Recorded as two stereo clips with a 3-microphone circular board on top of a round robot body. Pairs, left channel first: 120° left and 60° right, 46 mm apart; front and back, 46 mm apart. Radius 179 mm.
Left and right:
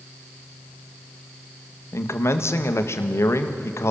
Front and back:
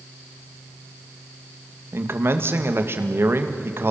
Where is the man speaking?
145° left, 2.0 m.